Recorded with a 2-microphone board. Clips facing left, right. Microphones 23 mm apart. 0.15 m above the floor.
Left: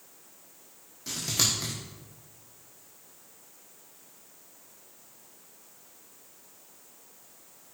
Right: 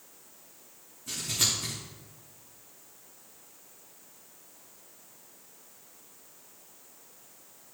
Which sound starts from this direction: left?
Scissors, at 1.1 s.